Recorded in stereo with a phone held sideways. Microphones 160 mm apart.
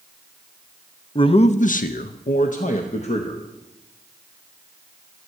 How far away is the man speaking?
About 0.6 m.